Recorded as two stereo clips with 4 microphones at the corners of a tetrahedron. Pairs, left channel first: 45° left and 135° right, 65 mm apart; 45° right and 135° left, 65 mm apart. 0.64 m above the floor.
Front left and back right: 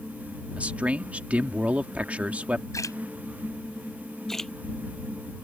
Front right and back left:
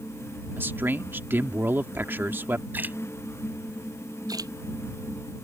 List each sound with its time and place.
0.6 s a man speaking: 165° left
2.7 s a splash: 75° left
4.3 s a splash: 130° left